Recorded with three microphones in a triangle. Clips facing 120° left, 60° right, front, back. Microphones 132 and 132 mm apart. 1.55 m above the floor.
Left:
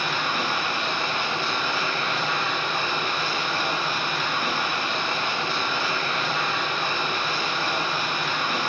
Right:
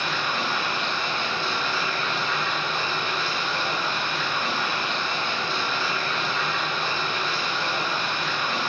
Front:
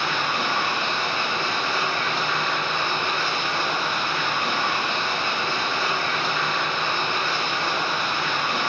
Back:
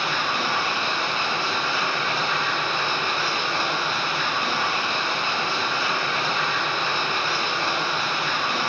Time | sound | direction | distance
0.0 | running water | 115° left | 3 m